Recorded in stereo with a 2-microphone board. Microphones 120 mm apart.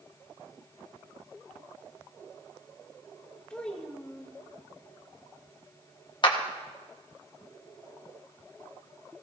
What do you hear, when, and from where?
3.5 s a child speaking: 10° left (ahead or behind), 1.6 m
6.2 s a clap: 40° left (ahead or behind), 1.2 m